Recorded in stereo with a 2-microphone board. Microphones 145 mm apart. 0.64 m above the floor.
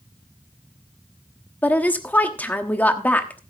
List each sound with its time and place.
1.6 s a woman speaking: 10° left (ahead or behind), 1.1 m